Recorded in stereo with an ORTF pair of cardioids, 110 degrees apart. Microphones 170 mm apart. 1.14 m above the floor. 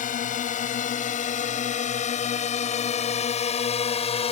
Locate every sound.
0.0 s a drone: 50° left; by 4.3 s 35° left